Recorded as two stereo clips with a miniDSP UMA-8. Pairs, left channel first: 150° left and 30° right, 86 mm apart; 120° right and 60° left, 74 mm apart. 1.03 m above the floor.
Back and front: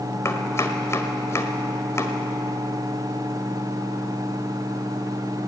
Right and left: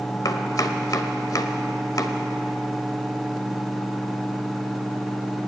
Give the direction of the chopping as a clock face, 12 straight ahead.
5 o'clock.